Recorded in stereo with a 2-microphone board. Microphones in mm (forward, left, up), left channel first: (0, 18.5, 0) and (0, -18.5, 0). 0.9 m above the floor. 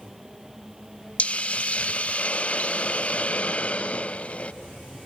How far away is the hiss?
About 0.5 m.